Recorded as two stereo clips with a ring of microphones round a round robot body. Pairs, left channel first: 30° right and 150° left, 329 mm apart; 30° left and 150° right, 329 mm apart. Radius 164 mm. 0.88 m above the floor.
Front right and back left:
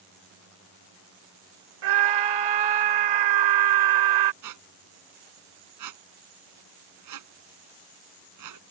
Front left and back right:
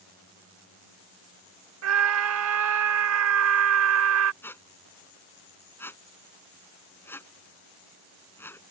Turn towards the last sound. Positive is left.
turn(degrees=115)